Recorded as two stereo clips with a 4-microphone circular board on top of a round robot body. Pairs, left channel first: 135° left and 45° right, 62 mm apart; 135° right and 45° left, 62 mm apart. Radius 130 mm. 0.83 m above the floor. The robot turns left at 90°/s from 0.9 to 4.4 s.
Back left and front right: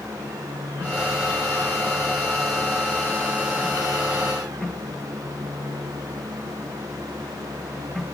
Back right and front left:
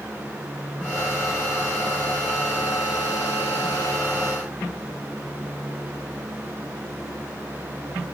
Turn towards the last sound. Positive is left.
No sound to turn to.